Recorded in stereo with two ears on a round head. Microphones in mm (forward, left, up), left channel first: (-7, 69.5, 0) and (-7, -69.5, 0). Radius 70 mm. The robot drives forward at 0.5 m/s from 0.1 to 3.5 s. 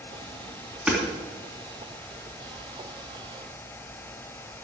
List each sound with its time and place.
0.9 s hammering: 5° right (ahead or behind), 3 m